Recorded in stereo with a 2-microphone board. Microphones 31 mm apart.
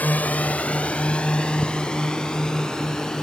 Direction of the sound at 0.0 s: 60° left (ahead or behind).